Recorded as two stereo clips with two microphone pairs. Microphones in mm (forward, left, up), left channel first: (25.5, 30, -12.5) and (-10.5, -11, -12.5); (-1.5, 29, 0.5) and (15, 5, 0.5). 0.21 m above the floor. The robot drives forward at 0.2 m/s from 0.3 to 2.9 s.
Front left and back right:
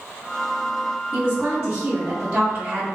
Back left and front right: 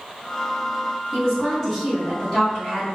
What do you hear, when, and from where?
1.1 s a woman speaking: 165° right, 1.5 m; by 2.9 s 170° right, 1.7 m